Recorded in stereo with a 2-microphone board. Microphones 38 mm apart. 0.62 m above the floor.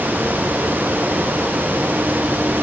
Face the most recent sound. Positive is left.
No sound to turn to.